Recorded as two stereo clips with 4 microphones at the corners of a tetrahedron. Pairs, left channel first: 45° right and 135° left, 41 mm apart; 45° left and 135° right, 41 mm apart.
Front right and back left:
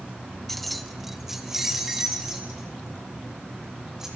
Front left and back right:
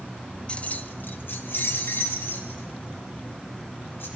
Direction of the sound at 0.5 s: 35° left.